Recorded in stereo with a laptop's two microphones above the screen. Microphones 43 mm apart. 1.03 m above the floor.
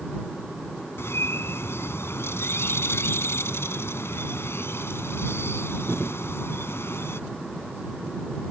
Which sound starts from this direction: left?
A bird, at 1.0 s.